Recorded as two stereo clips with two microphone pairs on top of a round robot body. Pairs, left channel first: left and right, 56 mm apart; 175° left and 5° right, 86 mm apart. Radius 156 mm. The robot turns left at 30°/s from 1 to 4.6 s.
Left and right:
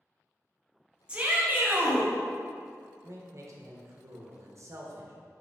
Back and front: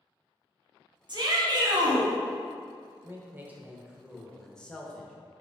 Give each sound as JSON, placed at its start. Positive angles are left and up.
{"t": 1.1, "sound": "a shout", "azimuth_deg": -20, "distance_m": 1.2}
{"t": 3.0, "sound": "a man speaking", "azimuth_deg": -65, "distance_m": 0.8}